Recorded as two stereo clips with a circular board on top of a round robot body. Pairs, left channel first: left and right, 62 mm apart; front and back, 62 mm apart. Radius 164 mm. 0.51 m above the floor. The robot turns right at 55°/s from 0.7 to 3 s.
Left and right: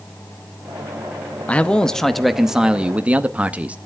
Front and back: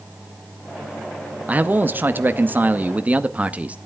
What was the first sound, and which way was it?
A man speaking, 140° left.